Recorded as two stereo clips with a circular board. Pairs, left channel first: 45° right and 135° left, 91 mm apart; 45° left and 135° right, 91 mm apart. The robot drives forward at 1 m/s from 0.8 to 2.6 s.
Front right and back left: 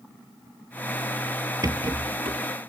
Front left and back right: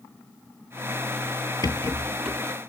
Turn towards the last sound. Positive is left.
turn(degrees=140)